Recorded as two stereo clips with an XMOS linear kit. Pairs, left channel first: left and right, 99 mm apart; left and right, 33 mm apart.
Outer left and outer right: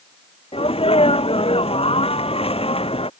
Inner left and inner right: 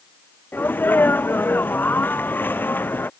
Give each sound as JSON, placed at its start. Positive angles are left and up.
{"t": 0.5, "sound": "a sneeze", "side_deg": 75}